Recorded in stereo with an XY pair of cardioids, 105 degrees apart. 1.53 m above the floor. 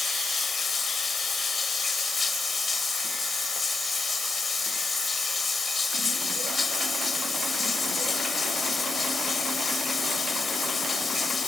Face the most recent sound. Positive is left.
turn(degrees=30)